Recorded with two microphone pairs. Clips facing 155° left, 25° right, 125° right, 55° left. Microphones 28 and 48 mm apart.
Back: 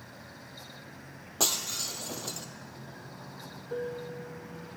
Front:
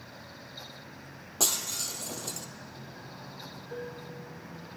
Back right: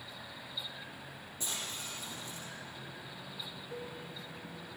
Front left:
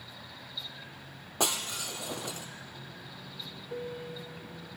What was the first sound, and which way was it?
Breaking glass, 75° left.